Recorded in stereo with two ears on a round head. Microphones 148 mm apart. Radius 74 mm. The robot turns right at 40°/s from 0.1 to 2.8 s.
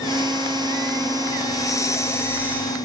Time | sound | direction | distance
1.5 | breathing | 20° left (ahead or behind) | 0.7 m